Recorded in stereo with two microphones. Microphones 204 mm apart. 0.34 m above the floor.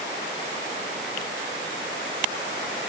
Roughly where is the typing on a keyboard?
I don't hear typing on a keyboard.